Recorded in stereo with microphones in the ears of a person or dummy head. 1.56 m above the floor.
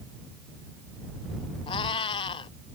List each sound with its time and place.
1.7 s a cat meowing: 30° left (ahead or behind)